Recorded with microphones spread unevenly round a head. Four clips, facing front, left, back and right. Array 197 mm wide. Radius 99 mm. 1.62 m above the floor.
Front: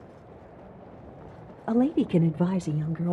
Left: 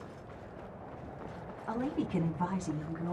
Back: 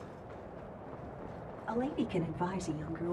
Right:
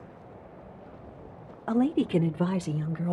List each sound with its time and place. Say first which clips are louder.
1.7 s a woman speaking: right 9 dB, front 11 dB; 30° right, 1.0 m; by 3.1 s 45° right, 2 m